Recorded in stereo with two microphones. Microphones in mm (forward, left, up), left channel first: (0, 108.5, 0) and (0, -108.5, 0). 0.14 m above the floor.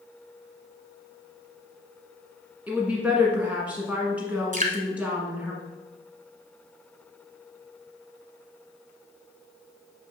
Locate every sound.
2.7 s a woman speaking: 5° right (ahead or behind), 1.4 m
4.5 s dripping: 35° right (ahead or behind), 1.0 m